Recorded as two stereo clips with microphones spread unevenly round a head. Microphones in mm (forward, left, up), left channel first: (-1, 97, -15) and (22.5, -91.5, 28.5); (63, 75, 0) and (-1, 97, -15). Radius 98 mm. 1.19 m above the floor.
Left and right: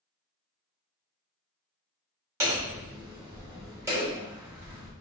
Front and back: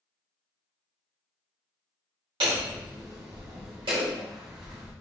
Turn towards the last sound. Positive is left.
turn(degrees=-160)